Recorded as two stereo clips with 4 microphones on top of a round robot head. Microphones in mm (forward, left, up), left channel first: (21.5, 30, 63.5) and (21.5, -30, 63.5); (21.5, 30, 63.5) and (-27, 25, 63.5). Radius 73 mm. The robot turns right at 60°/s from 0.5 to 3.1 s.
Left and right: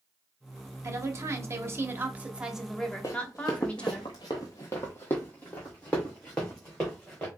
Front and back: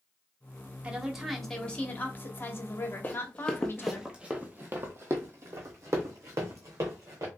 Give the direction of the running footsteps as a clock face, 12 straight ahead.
10 o'clock.